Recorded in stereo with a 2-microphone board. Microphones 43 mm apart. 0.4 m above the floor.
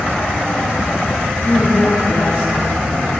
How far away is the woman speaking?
About 3 m.